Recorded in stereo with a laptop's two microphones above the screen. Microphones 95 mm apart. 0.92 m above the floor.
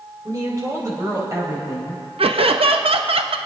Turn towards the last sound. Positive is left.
turn(degrees=-70)  # may be behind; listen again after turning